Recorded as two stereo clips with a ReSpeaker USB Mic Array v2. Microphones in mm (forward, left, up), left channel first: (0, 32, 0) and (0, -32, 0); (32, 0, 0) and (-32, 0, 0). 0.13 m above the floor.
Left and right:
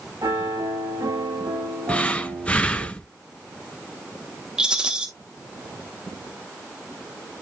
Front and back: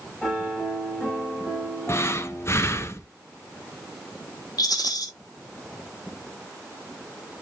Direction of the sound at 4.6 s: 10° right.